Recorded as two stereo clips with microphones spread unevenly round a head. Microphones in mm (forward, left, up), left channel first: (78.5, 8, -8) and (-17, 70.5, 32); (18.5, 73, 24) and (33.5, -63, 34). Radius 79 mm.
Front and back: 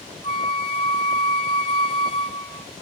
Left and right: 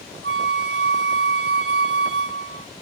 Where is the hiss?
I don't hear a hiss.